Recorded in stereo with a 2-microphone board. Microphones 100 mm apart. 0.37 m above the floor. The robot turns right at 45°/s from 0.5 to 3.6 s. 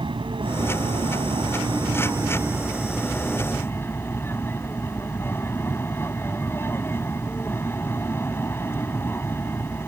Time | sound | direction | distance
0.0 | an aircraft | 115° right | ?